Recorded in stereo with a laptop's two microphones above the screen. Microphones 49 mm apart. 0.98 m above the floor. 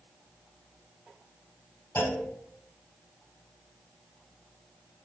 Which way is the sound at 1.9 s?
45° left (ahead or behind).